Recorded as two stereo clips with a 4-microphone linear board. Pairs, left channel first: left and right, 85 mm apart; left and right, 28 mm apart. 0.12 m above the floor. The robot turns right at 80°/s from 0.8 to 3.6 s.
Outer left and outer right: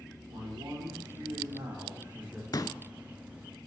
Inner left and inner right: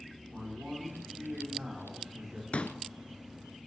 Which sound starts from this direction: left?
A pop, at 2.5 s.